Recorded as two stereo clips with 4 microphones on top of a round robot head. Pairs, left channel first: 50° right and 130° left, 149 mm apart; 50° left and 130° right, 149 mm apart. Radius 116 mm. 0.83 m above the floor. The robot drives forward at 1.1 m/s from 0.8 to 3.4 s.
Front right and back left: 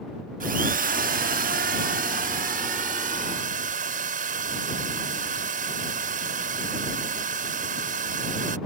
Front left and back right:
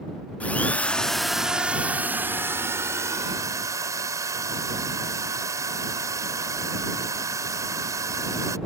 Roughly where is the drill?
Behind left.